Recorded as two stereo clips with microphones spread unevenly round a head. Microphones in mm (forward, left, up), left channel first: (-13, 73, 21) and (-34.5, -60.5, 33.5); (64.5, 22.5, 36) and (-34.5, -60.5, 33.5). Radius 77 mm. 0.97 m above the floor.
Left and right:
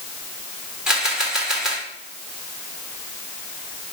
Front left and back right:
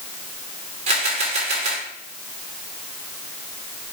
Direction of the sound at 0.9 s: 175° left.